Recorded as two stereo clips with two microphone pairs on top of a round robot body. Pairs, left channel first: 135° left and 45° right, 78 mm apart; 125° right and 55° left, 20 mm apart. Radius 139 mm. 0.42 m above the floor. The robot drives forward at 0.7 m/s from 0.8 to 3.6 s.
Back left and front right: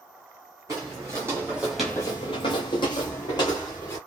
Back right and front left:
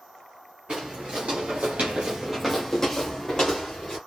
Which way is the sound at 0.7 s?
10° left.